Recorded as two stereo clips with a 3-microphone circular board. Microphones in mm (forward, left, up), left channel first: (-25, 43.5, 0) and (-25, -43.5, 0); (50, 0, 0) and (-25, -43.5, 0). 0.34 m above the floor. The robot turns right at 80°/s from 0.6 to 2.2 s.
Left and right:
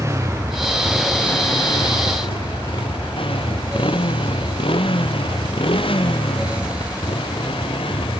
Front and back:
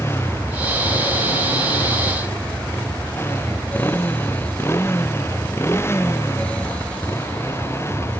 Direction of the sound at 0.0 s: 35° right.